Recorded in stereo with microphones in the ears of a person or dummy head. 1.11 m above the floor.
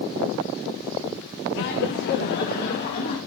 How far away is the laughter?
About 0.5 m.